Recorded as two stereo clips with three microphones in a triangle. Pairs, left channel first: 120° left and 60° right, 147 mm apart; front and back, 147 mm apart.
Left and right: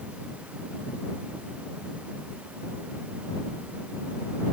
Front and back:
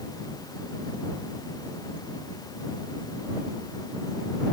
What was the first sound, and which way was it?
Only background noise.